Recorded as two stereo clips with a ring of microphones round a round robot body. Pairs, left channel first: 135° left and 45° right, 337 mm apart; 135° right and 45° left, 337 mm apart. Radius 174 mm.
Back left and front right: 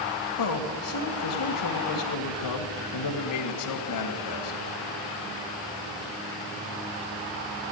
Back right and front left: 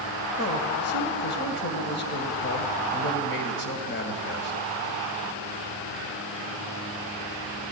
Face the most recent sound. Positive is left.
turn(degrees=165)